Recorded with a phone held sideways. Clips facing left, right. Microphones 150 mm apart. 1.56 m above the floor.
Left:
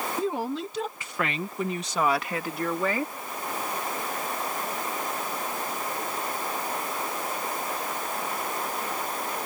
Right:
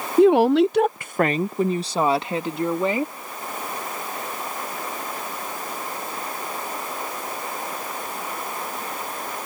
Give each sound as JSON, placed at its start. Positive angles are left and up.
{"t": 0.2, "sound": "a woman speaking", "side_deg": -75}